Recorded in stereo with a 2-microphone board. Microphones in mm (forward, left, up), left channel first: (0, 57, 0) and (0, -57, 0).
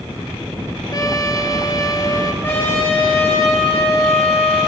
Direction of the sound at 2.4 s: 20° left (ahead or behind).